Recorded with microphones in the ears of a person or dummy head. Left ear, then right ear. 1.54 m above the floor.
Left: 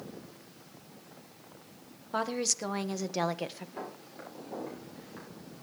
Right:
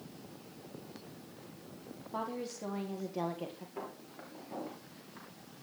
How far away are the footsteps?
About 9 m.